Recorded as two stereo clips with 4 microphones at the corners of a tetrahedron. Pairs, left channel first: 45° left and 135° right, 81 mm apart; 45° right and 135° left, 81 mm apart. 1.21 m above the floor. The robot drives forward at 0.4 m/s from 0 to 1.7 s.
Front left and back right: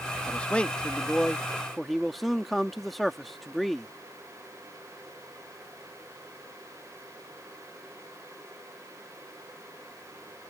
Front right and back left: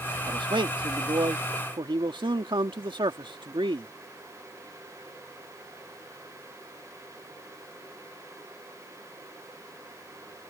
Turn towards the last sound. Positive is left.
turn(degrees=135)